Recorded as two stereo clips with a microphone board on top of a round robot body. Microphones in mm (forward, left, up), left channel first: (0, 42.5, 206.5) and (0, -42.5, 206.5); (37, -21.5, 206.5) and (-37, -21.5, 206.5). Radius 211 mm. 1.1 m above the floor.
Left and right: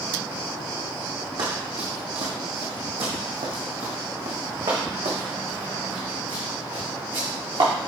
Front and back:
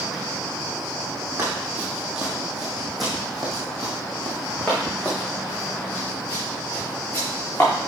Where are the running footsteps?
115° right, 2.0 m; by 7.7 s 65° right, 4.5 m.